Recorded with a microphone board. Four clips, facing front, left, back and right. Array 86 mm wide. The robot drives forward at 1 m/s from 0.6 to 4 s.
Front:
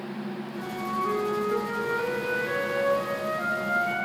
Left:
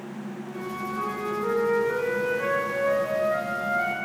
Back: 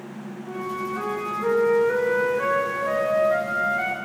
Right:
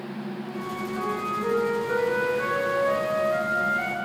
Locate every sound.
0.5 s a flute: 175° right, 9.5 m